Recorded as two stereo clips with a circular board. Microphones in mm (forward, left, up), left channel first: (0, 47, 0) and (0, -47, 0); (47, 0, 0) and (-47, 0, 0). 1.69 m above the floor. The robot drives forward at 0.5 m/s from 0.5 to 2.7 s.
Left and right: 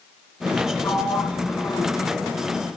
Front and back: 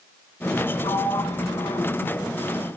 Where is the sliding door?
30° left, 3.5 m; by 1.9 s 35° left, 3 m.